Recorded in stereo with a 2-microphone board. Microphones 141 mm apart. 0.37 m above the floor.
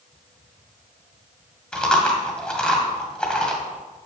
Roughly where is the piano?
I don't hear a piano.